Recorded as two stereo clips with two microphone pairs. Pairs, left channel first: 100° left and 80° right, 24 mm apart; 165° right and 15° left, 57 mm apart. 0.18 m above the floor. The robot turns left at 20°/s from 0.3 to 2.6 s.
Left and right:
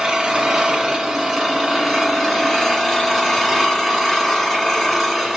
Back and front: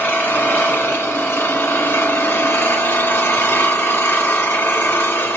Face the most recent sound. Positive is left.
turn(degrees=-165)